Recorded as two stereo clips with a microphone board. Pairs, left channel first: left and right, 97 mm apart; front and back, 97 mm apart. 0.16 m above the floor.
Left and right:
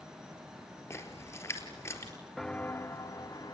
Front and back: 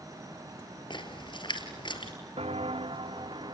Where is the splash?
30° left, 4 m.